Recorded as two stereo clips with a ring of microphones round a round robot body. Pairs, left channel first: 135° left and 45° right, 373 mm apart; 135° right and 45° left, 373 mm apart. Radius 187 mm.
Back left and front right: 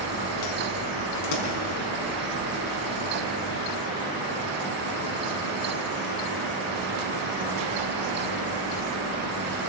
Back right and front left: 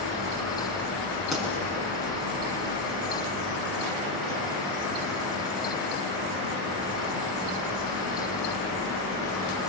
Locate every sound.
1.3 s a pop: 135° left, 5 m